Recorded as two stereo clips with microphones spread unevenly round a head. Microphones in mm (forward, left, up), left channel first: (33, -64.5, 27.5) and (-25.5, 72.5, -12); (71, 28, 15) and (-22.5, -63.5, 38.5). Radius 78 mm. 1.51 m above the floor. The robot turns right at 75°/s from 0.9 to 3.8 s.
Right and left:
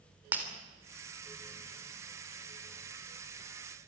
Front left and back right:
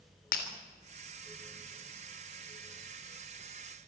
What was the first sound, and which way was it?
Breaking glass, 30° left.